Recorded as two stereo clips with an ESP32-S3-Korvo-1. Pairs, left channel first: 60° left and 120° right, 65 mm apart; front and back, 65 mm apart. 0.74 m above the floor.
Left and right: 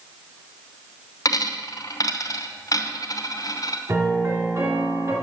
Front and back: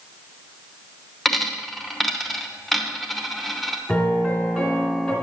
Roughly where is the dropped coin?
Left.